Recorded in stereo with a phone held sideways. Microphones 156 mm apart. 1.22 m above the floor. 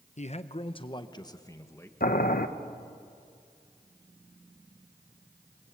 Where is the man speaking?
50° left (ahead or behind), 1.0 m; by 1.9 s 15° left (ahead or behind), 1.5 m.